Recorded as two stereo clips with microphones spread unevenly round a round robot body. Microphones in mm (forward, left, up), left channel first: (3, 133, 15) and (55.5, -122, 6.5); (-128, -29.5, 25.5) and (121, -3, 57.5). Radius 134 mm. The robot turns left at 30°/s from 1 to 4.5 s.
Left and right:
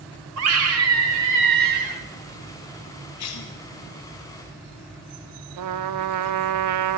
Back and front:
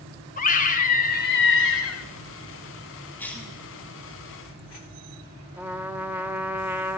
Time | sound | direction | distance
0.4 | a scream | 115° right | 1.6 m
3.2 | a cough | 110° left | 1.1 m
5.6 | a trumpet | 75° right | 0.6 m